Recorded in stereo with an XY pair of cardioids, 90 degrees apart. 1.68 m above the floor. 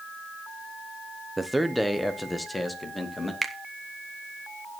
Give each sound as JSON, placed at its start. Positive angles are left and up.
{"t": 1.4, "sound": "a man speaking", "azimuth_deg": -10, "distance_m": 0.9}
{"t": 3.4, "sound": "a finger snap", "azimuth_deg": -10, "distance_m": 1.4}